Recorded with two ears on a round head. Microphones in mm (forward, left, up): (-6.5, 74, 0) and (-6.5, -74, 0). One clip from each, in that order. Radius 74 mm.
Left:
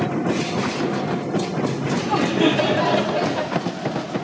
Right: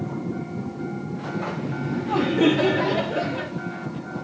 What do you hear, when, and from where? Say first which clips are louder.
1.7 s laughter: left 5 dB; 45° left (ahead or behind), 1.5 m